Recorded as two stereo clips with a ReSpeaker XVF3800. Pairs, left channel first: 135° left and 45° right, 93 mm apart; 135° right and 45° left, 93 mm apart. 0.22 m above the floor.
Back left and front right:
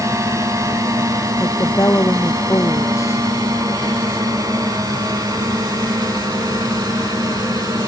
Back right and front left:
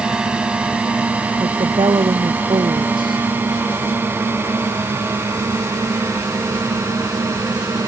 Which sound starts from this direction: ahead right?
A drone, at 0.0 s.